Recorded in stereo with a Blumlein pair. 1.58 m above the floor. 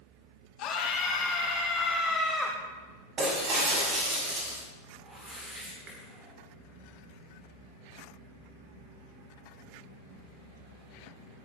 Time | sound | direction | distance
0.6 | a scream | 35° left | 2 m
3.2 | breaking glass | 30° right | 5.5 m
5.0 | a whoosh | 20° right | 6.5 m